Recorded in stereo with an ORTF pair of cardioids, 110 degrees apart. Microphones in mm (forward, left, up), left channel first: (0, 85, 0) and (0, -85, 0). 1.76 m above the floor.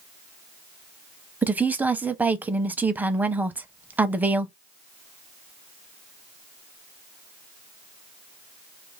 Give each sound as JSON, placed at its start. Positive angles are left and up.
{"t": 1.4, "sound": "a woman speaking", "azimuth_deg": -10, "distance_m": 0.5}